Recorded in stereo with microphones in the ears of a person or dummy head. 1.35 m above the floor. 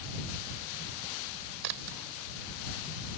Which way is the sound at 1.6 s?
75° right (ahead or behind).